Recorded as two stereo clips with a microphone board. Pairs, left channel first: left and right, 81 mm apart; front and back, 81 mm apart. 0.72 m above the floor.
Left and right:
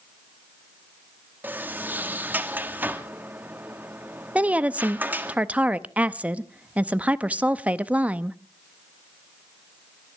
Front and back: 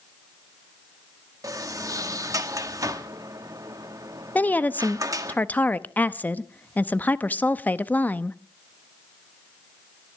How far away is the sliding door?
About 1.4 m.